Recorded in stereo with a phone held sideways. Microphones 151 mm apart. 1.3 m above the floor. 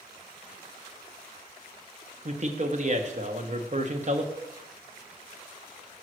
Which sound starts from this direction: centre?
A cowbell, at 4.4 s.